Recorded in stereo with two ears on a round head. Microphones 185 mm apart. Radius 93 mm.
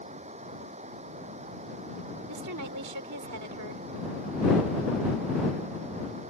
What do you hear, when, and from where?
0.0 s running water: 30° right (ahead or behind)
2.3 s a woman speaking: 85° right